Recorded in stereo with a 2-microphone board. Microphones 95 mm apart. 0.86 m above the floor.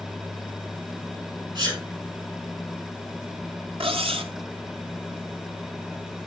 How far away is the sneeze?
About 6 m.